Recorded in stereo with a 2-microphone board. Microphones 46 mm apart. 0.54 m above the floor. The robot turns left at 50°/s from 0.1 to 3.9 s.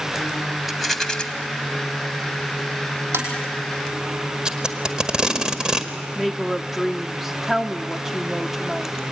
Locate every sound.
0.7 s a rattle: 5° right (ahead or behind), 2 m; by 1.2 s 25° left (ahead or behind), 2 m
3.1 s tapping: 70° right (ahead or behind), 5 m; by 3.3 s 75° right (ahead or behind), 5 m
4.5 s tape being pulled: 20° right (ahead or behind), 1.7 m
6.2 s a woman speaking: 10° right (ahead or behind), 0.8 m